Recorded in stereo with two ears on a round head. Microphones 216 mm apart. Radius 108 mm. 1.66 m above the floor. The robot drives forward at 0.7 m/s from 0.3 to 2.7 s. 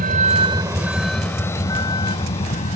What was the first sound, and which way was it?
A vehicle, 35° right (ahead or behind).